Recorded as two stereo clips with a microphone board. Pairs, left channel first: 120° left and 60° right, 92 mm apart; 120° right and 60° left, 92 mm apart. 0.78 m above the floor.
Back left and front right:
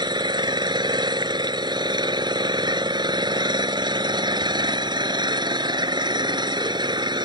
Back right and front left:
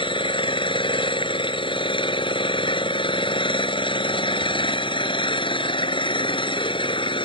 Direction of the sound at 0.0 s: 95° right.